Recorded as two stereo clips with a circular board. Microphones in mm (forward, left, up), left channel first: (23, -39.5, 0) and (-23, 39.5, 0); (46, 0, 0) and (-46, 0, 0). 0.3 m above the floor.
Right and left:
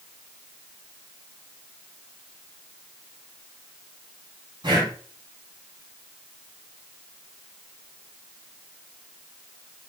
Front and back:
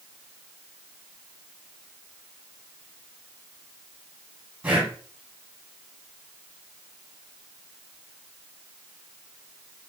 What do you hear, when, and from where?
4.6 s breathing: 110° left, 1.7 m